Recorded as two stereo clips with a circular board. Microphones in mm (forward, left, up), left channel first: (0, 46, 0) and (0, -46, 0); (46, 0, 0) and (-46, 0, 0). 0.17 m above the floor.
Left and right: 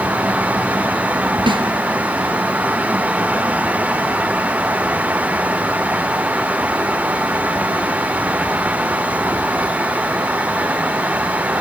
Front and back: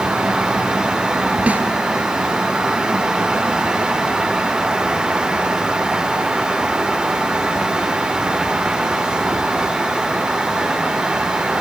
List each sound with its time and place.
1.5 s a snare drum: 105° right, 1.6 m